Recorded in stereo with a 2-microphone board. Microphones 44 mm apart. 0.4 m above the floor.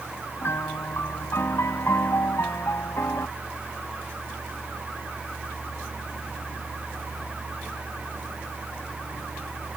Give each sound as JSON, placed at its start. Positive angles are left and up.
{"t": 0.4, "sound": "a piano", "side_deg": 70}